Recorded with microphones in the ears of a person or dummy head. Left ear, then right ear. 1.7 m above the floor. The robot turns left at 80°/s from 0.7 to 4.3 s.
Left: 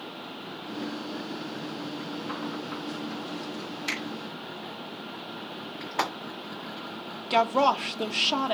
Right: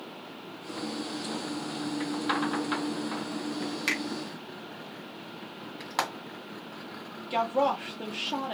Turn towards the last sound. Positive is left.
turn(degrees=25)  # may be behind; listen again after turning